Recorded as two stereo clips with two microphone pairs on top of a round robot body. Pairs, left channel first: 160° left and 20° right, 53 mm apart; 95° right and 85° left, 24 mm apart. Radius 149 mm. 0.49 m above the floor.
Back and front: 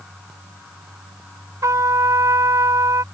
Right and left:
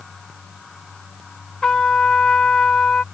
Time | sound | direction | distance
1.6 | a trumpet | 40° right | ?